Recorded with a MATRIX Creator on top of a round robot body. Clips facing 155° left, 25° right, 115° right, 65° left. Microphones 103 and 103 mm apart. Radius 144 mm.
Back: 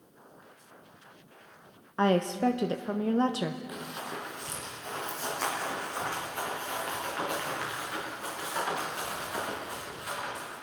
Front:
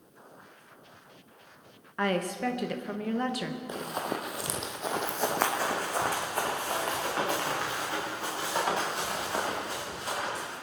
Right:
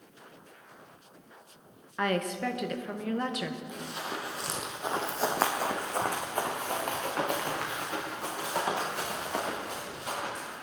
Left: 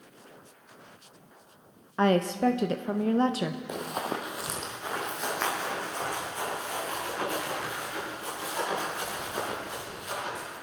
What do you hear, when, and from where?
2.0 s a woman speaking: 110° left, 1.0 m
3.7 s running footsteps: 40° left, 1.4 m; by 10.5 s 85° right, 9 m